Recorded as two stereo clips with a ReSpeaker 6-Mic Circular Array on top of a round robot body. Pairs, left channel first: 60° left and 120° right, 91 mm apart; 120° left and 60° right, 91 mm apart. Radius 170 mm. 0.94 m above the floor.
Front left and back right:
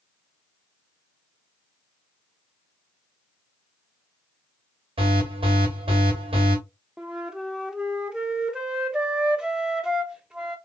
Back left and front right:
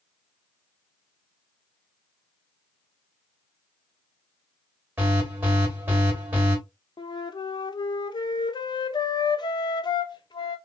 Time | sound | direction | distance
5.0 | an alarm | 130° right | 3 m
7.0 | a flute | 160° left | 0.7 m